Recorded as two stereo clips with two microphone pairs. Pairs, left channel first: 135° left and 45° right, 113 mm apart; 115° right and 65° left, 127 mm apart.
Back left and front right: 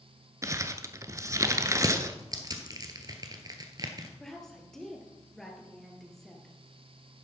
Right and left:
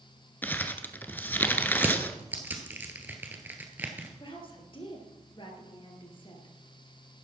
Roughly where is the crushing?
Ahead.